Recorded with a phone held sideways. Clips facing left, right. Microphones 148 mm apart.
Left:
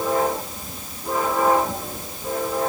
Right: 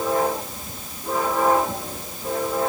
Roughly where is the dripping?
I don't hear dripping.